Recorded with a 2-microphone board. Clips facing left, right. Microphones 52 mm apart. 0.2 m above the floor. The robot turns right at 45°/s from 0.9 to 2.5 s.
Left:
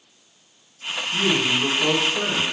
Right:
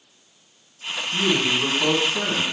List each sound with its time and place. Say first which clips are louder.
1.1 s a man speaking: even; 170° right, 1.6 m; by 2.4 s 110° right, 1.6 m